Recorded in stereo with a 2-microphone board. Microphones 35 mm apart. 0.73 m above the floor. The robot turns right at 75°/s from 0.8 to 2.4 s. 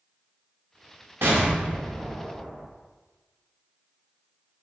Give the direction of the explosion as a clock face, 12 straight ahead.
3 o'clock.